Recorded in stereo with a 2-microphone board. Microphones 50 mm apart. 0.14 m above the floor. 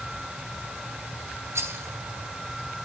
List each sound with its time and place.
1.6 s a rattle: 60° right (ahead or behind), 1.2 m